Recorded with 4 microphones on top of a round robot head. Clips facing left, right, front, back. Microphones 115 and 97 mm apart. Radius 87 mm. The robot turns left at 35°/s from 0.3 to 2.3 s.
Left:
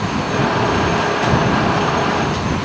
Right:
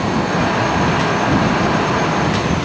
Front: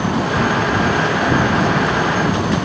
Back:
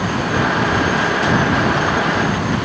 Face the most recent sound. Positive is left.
No sound to turn to.